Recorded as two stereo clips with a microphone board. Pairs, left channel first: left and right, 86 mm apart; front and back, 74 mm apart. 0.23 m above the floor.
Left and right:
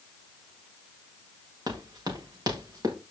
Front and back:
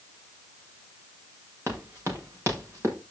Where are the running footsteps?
130° right, 6 m; by 2.9 s 135° right, 6.5 m.